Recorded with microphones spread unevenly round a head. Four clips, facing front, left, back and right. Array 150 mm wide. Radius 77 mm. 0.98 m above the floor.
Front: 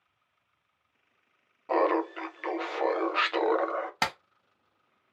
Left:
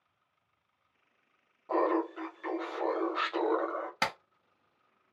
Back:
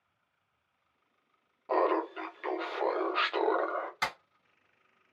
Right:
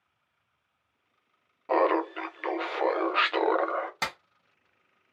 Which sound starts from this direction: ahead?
A clap, at 4.0 s.